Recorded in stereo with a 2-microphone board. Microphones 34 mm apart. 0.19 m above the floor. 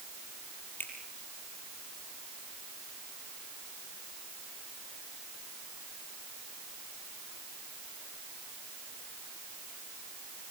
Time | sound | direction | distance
0.8 | a finger snap | 70° left (ahead or behind) | 5.5 m